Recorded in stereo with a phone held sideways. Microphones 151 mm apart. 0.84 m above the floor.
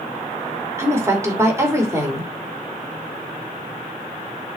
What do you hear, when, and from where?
0.8 s a woman speaking: 20° right (ahead or behind), 2.5 m